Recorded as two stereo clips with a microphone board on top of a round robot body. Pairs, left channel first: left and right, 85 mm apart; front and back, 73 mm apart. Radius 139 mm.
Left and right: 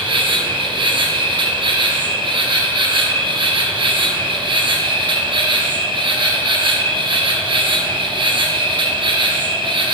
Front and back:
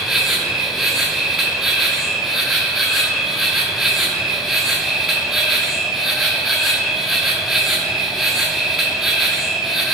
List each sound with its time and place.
0.0 s an insect: 95° right, 1.3 m